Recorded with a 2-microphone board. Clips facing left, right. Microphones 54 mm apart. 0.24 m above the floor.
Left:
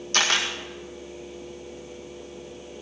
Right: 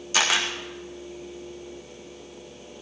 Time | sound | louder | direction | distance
0.1 | a camera shutter | even | 5° right (ahead or behind) | 2 m